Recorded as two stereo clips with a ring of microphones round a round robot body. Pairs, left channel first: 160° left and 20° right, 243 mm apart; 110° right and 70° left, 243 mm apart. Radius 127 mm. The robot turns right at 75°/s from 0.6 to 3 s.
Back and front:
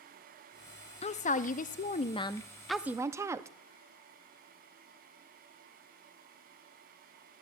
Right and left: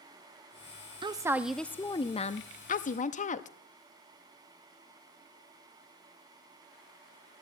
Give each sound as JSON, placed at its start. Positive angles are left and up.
{"t": 1.0, "sound": "a woman speaking", "azimuth_deg": 120, "distance_m": 0.5}